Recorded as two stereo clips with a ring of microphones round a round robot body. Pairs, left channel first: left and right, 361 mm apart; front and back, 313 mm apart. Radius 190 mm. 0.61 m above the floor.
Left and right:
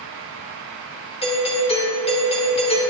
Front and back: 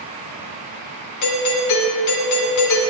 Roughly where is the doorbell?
Ahead.